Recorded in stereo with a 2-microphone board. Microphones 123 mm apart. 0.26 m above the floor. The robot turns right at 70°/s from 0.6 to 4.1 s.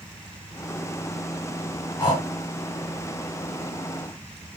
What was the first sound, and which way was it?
Breathing, 30° left (ahead or behind).